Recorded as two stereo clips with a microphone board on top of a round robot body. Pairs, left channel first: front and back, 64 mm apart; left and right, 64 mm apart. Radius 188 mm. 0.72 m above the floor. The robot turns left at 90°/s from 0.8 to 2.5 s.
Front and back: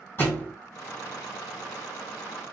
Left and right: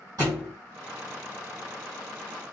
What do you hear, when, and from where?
0.2 s a thud: 60° right, 2.5 m